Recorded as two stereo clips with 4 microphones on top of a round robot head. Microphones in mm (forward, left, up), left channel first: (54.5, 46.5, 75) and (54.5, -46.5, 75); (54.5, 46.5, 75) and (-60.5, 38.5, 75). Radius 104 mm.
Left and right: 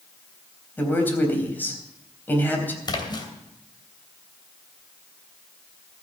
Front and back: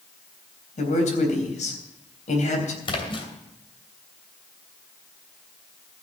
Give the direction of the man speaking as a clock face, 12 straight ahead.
11 o'clock.